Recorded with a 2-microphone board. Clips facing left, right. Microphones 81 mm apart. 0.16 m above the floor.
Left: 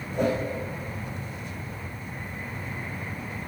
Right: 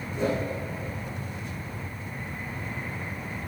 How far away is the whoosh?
About 5.5 m.